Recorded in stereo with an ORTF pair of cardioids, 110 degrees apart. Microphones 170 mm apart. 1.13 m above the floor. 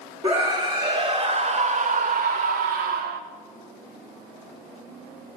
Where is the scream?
30° right, 2.5 m; by 3.2 s 70° right, 1.2 m.